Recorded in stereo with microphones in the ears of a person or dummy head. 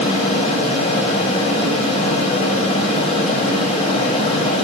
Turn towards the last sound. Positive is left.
turn(degrees=40)  # may be behind; listen again after turning